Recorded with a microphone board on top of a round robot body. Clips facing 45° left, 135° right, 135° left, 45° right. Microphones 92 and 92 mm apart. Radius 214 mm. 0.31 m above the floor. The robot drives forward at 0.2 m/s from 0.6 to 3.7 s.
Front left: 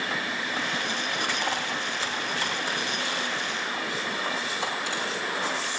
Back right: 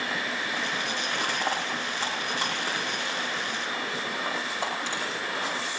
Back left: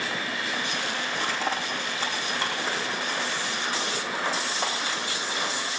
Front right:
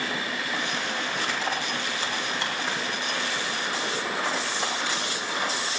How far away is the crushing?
About 10 m.